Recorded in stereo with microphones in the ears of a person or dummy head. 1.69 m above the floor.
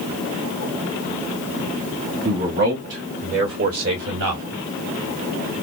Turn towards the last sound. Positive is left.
turn(degrees=-75)  # may be behind; listen again after turning